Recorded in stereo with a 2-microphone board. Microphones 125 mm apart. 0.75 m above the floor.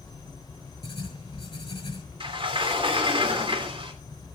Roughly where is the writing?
Left.